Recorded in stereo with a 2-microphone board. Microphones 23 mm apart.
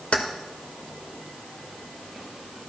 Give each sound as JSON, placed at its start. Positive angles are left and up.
{"t": 0.1, "sound": "keys jangling", "side_deg": 65, "distance_m": 1.0}